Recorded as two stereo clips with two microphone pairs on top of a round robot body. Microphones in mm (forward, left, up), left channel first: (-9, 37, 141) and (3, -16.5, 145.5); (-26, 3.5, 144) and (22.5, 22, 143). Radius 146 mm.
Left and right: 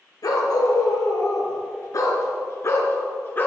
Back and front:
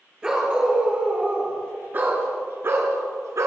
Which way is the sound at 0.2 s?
100° left.